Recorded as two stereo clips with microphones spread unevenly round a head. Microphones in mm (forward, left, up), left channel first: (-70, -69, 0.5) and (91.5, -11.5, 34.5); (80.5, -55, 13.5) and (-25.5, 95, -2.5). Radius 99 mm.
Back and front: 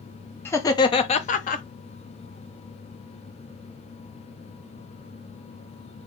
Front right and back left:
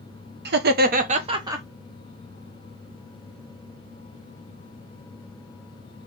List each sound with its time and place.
0.5 s laughter: 130° left, 0.9 m; by 1.6 s 165° right, 0.8 m